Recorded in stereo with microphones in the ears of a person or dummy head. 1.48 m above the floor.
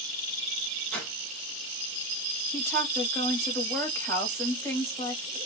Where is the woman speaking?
15° left (ahead or behind), 2.5 m.